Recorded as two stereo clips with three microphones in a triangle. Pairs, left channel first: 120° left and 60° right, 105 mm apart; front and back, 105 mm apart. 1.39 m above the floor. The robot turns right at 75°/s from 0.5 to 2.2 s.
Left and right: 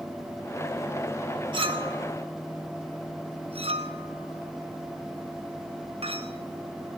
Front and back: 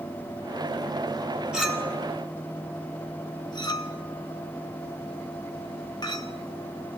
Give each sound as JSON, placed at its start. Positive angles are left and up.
{"t": 1.5, "sound": "a clink", "azimuth_deg": -100, "distance_m": 4.0}